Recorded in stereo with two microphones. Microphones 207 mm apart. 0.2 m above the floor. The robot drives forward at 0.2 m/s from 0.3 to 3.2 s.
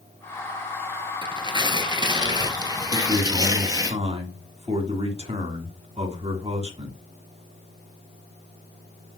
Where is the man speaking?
30° right (ahead or behind), 1.9 m.